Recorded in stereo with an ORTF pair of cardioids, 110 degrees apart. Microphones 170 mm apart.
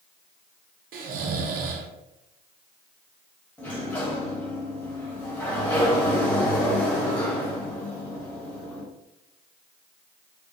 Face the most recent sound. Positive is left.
turn(degrees=10)